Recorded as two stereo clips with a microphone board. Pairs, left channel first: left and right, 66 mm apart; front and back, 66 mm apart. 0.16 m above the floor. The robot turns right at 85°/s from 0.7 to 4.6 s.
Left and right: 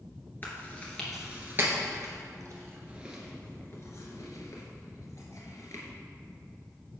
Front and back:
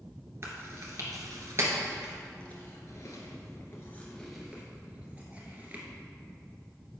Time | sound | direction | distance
0.4 | chewing | 145° left | 2.0 m